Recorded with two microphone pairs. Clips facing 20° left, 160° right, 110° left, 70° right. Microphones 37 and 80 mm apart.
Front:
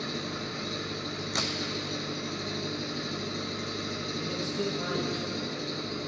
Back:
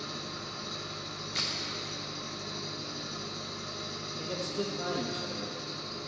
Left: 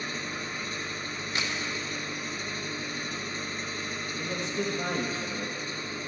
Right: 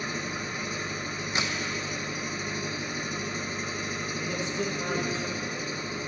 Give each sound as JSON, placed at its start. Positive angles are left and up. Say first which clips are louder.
{"t": 0.0, "sound": "an engine running", "louder": "front 5 dB, right 2 dB", "azimuth_deg": 10, "distance_m": 0.7}
{"t": 1.3, "sound": "a crack", "louder": "front 3 dB, right 2 dB", "azimuth_deg": 0, "distance_m": 1.0}
{"t": 4.2, "sound": "a man speaking", "louder": "front 1 dB, even", "azimuth_deg": 95, "distance_m": 4.0}